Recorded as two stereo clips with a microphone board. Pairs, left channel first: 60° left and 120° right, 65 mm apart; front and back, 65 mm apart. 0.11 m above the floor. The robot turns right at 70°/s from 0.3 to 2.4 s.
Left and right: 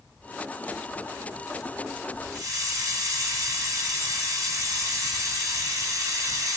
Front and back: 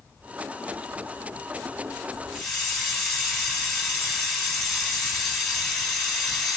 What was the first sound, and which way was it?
A hiss, 85° right.